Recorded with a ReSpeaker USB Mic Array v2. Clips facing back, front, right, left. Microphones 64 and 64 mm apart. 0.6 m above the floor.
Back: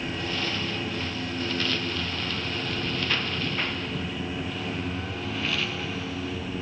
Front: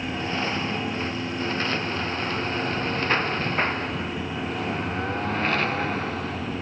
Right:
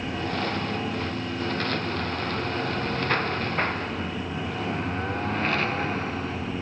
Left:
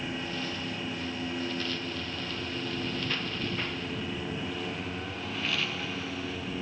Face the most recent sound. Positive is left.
turn(degrees=-40)